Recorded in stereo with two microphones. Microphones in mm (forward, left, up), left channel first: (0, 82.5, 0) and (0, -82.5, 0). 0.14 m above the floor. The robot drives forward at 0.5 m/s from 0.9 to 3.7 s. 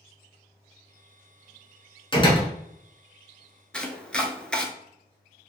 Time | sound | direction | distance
2.1 | a door slam | 30° left (ahead or behind) | 1.3 m
3.7 | chopping | 5° left (ahead or behind) | 0.7 m